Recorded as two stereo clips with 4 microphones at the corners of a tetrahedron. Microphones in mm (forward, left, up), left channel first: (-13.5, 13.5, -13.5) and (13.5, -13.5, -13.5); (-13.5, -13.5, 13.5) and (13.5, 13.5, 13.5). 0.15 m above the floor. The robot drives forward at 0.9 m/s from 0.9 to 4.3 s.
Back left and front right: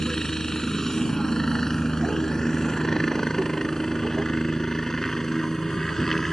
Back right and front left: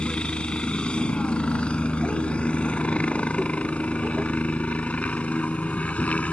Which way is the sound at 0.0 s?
165° right.